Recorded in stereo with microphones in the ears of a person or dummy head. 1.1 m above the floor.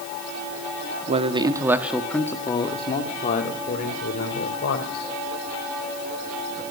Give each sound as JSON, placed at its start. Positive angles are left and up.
{"t": 1.1, "sound": "a man speaking", "side_deg": -35, "distance_m": 1.8}